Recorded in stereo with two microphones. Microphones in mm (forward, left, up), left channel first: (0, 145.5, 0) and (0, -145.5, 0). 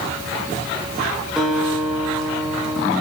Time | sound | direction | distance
1.4 | a guitar | centre (ahead or behind) | 8.5 m